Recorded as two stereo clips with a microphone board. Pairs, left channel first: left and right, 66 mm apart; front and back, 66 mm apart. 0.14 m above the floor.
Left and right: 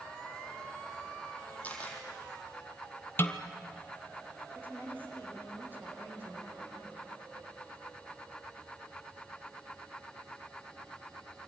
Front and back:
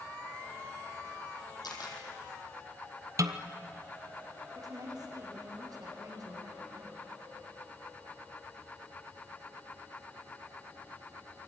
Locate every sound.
1.6 s a camera shutter: 20° left, 5 m
3.2 s a snare drum: 145° left, 1.1 m
4.5 s a woman speaking: 155° right, 7 m